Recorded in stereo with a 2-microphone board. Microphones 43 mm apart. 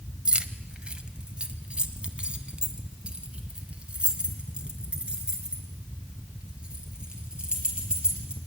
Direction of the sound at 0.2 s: 20° right (ahead or behind).